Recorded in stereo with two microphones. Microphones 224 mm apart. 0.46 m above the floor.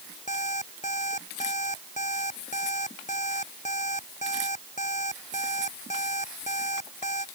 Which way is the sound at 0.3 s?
30° left (ahead or behind).